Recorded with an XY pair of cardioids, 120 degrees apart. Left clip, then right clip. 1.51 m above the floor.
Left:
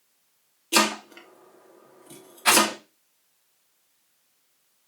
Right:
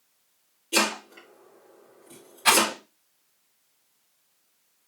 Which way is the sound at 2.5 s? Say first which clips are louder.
Left 1 dB; 5° right.